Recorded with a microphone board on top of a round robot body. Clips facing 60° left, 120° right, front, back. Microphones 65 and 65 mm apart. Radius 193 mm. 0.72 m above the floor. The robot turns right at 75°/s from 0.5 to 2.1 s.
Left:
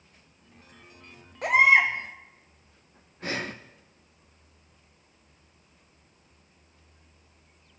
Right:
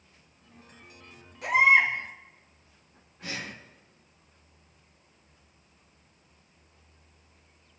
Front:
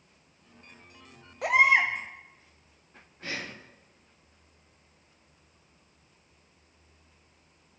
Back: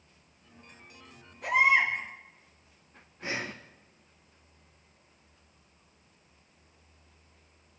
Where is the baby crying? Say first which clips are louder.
Left 1 dB, front 2 dB; 10° left, 1.7 m; by 1.9 s 50° left, 1.7 m.